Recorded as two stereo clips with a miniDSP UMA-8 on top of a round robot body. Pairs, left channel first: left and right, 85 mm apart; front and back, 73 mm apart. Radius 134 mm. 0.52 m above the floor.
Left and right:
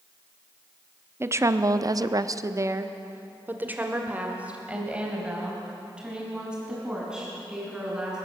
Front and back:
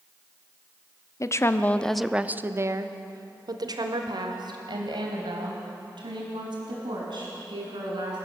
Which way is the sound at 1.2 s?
35° right.